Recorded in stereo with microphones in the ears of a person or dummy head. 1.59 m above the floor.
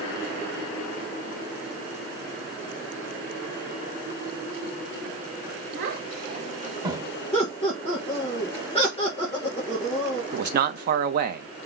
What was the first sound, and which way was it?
A child speaking, 60° right (ahead or behind).